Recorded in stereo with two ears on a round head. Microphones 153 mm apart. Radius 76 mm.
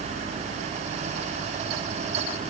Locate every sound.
Only background noise.